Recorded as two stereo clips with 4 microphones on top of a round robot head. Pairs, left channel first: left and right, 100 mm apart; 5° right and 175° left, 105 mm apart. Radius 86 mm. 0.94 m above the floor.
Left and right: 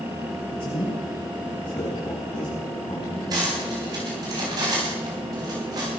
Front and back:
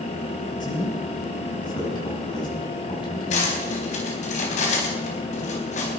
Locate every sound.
0.6 s a man speaking: 40° left, 8.5 m; by 3.5 s 35° left, 6 m
3.3 s cutlery clinking: 30° right, 4 m